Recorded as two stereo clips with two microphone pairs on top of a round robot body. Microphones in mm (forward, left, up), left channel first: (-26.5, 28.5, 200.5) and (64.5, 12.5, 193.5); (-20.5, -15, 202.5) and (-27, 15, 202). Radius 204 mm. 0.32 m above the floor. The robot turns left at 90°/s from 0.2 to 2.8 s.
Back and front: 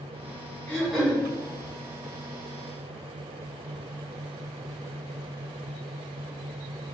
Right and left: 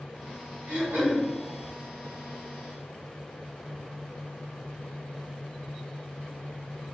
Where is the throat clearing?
105° left, 0.9 m; by 1.2 s 55° left, 0.9 m.